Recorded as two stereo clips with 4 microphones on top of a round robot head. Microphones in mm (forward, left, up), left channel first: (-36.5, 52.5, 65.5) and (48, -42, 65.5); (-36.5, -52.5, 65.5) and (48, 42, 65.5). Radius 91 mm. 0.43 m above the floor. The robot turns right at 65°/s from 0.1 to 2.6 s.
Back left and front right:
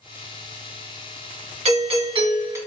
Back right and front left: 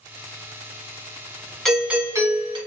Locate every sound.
1.6 s a doorbell: 45° right, 1.8 m; by 2.6 s 15° left, 1.8 m